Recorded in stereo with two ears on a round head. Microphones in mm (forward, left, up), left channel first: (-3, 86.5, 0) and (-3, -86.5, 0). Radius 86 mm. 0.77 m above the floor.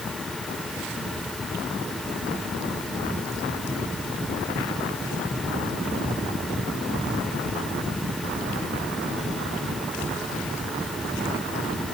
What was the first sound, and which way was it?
Only background noise.